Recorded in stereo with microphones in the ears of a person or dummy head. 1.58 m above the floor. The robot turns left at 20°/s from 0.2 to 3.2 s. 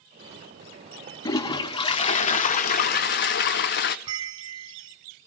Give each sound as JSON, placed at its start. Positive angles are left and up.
{"t": 1.2, "sound": "a toilet flushing", "azimuth_deg": 160, "distance_m": 0.6}
{"t": 4.1, "sound": "a bell", "side_deg": -30, "distance_m": 0.6}